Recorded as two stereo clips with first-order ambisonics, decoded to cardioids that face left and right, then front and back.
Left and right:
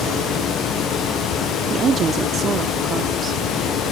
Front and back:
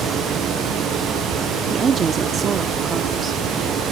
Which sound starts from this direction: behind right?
A woman speaking, at 1.7 s.